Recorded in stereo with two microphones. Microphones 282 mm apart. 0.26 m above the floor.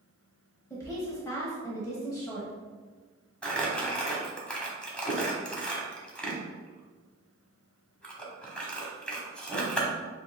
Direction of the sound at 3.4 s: 5° left (ahead or behind).